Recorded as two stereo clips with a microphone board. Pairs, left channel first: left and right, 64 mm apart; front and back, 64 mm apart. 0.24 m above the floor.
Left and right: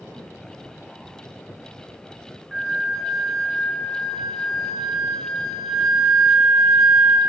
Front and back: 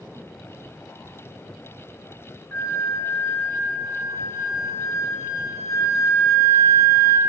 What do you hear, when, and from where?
2.5 s a flute: straight ahead, 1.3 m